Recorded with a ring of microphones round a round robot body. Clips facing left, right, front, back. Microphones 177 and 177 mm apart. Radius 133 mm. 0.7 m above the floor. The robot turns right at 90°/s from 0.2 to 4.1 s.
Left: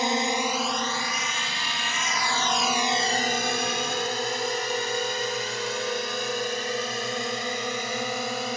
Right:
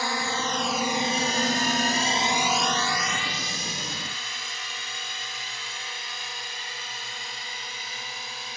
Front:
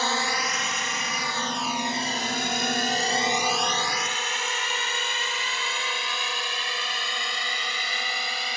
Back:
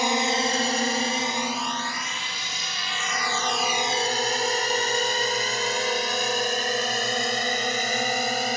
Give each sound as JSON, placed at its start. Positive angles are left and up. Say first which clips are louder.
{"t": 0.0, "sound": "a drone", "louder": "left 4 dB, back 5 dB", "azimuth_deg": 130}